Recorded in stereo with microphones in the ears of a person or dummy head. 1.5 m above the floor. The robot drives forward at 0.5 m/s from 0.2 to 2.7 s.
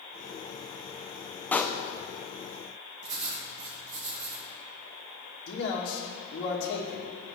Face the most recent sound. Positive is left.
turn(degrees=50)  # may be behind; listen again after turning